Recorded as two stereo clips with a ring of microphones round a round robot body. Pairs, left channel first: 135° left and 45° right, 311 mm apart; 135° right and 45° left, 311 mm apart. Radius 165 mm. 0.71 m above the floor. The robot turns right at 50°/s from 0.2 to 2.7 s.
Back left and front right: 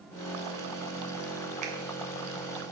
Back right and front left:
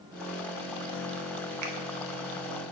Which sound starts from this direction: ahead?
A finger snap, at 1.6 s.